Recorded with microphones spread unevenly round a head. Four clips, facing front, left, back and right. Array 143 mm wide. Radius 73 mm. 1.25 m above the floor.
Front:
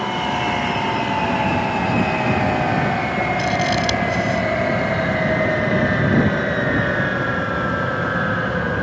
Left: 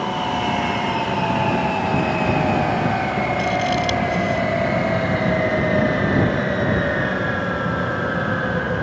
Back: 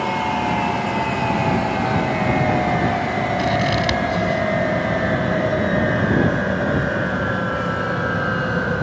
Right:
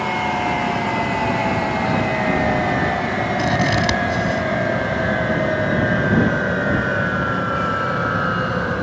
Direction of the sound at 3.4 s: 95° right.